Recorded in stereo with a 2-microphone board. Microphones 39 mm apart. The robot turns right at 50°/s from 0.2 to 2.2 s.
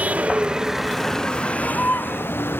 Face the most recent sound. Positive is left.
turn(degrees=65)  # may be behind; listen again after turning